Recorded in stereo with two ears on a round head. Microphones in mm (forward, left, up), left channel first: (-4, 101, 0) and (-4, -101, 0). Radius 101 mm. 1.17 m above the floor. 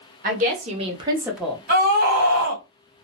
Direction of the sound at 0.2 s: 40° right (ahead or behind).